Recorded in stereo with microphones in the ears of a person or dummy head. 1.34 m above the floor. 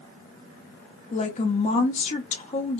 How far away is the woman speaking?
About 0.8 m.